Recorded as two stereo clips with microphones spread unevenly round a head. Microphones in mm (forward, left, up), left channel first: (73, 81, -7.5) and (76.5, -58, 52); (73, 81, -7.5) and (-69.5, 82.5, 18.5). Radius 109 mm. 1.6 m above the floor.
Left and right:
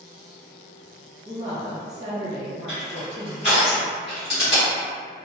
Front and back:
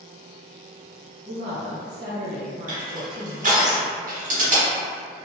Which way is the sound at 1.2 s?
155° right.